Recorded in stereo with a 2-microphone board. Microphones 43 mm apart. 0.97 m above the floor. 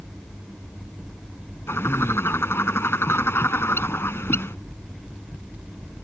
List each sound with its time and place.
1.7 s a bird: 85° left